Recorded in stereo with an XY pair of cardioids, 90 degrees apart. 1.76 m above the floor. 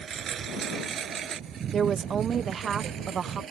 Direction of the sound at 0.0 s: 60° right.